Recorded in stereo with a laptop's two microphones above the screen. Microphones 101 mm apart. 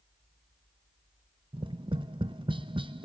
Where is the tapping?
55° right (ahead or behind), 0.9 m.